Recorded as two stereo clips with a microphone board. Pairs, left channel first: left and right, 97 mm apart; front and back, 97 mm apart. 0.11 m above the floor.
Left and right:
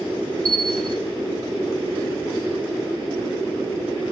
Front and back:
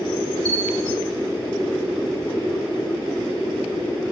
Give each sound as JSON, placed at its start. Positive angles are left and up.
{"t": 0.5, "sound": "a bell", "azimuth_deg": -140, "distance_m": 4.0}